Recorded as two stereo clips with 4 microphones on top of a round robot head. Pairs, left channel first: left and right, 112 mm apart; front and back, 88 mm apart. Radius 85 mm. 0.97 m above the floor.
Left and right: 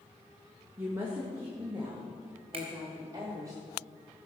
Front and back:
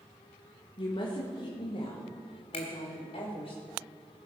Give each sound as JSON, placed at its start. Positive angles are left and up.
{"t": 0.8, "sound": "a woman speaking", "azimuth_deg": -20, "distance_m": 1.3}
{"t": 2.5, "sound": "a finger snap", "azimuth_deg": -40, "distance_m": 2.0}